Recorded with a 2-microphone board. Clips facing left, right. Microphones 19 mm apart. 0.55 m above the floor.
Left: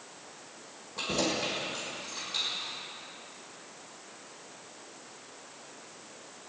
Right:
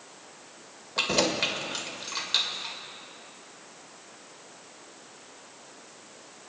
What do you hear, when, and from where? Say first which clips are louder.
1.0 s keys jangling: right 5 dB; 65° right (ahead or behind), 1.6 m